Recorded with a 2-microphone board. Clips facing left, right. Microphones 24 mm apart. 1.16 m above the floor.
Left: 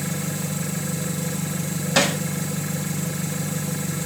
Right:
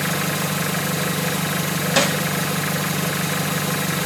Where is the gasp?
I don't hear a gasp.